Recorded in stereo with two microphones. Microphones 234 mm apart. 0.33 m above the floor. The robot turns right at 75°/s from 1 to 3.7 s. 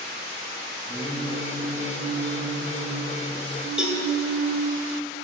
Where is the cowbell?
5° right (ahead or behind), 1.5 m.